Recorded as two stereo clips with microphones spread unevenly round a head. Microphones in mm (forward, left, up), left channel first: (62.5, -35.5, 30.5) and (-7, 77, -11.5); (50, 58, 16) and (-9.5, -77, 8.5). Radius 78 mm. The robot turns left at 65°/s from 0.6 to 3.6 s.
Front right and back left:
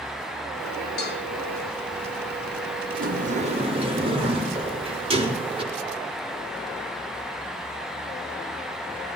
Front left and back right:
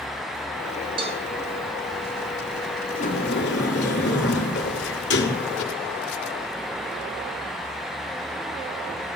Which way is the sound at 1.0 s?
60° right.